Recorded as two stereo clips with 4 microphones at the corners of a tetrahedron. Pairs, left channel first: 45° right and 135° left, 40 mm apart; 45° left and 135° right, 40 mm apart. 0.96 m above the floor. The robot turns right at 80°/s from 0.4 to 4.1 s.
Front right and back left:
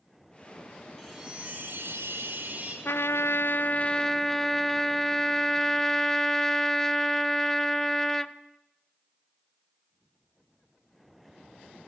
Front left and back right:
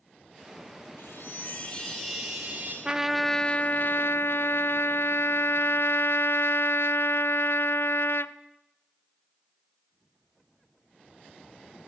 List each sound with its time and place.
1.0 s a chime: 35° left, 6 m; by 2.8 s straight behind, 6 m
2.9 s a trumpet: 65° right, 0.5 m; by 8.3 s 35° left, 0.5 m